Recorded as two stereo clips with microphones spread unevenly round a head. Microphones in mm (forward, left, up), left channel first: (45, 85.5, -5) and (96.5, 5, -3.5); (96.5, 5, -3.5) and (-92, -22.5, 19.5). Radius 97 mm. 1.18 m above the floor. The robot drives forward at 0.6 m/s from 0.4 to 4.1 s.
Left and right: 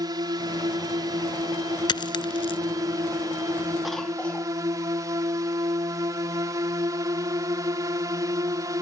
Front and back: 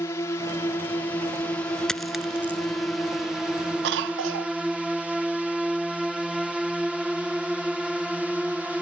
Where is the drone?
55° right; by 8.8 s 80° right.